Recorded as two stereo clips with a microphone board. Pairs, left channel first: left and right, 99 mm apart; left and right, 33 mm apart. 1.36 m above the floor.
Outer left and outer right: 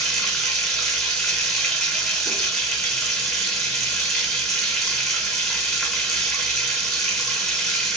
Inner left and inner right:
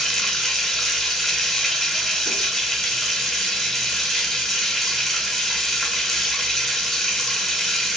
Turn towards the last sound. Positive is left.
turn(degrees=5)  # may be behind; listen again after turning